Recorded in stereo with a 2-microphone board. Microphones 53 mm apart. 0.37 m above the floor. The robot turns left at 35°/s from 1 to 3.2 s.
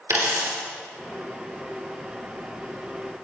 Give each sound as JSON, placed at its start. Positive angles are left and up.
{"t": 0.1, "sound": "a dropped coin", "side_deg": -80, "distance_m": 3.0}